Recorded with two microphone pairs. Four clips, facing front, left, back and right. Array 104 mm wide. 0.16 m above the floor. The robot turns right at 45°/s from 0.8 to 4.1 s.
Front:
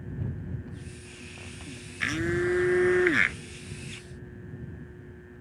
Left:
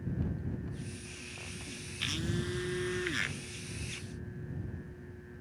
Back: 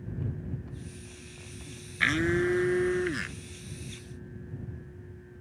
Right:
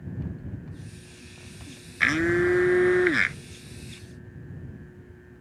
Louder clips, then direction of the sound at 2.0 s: Right 15 dB, back 1 dB; 105° right.